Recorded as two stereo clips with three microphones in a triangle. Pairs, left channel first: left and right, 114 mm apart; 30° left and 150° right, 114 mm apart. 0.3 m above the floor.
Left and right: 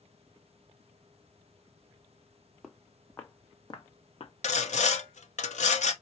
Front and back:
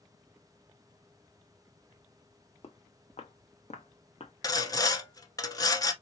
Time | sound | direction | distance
2.6 | footsteps | straight ahead | 1.0 m
4.4 | sawing | 90° left | 0.6 m